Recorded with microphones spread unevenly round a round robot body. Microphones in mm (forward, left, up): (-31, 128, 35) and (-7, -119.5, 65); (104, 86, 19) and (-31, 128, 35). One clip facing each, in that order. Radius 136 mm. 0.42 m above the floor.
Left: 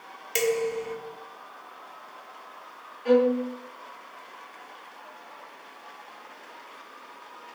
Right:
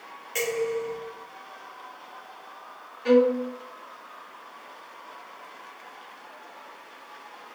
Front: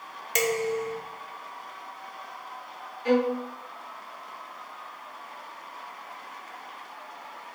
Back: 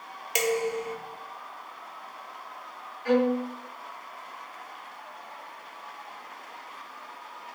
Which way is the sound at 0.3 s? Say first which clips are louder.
Left 1 dB, front 1 dB; 85° left.